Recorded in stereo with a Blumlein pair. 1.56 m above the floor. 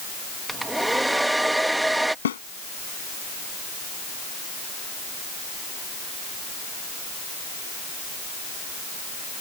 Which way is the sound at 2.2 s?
65° left.